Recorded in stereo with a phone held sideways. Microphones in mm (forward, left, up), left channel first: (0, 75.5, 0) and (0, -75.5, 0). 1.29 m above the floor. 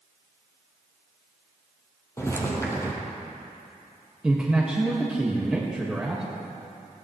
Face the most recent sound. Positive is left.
turn(degrees=-5)  # may be behind; listen again after turning